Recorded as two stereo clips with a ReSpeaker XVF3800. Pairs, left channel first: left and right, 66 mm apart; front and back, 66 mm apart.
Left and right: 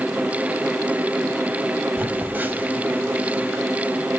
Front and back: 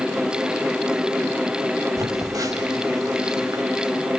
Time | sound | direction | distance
2.0 | a phone buzzing | 150° right | 0.6 m